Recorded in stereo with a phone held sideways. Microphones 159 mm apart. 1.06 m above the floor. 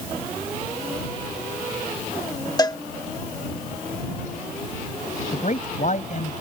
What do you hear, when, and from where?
2.6 s a cowbell: 25° left (ahead or behind)
5.3 s a man speaking: 55° left (ahead or behind)